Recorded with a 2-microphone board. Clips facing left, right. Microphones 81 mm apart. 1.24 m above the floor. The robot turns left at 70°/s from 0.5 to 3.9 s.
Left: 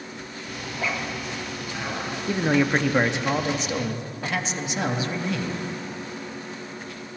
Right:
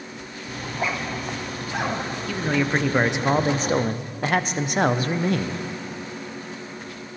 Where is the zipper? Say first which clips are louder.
Right 2 dB; 5° right (ahead or behind), 1.1 m; by 2.2 s 65° right (ahead or behind), 1.1 m.